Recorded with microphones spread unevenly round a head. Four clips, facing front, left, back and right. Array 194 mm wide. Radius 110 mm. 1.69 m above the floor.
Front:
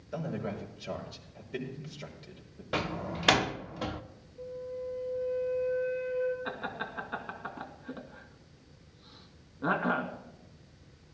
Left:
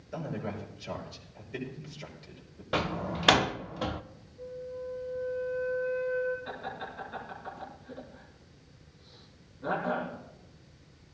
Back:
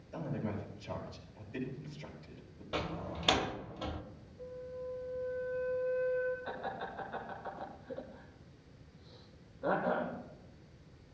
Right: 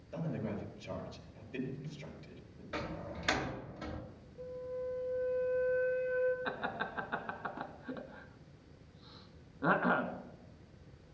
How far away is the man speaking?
About 6 m.